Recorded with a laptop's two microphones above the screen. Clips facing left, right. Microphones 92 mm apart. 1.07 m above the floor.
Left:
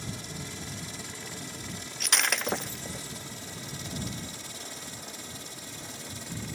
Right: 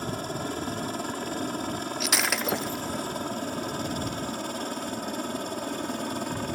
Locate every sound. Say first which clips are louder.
0.0 s a helicopter: right 9 dB; 55° right (ahead or behind); by 6.5 s 60° right (ahead or behind)
2.0 s breaking glass: even; 5° right (ahead or behind)